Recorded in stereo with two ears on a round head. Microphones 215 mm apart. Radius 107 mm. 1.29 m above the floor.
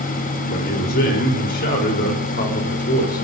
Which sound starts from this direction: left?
A man speaking, at 0.5 s.